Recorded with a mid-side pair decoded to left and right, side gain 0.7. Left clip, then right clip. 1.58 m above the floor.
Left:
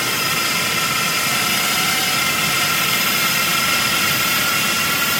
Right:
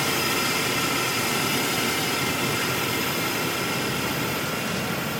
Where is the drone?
25° left; by 5.2 s 55° left.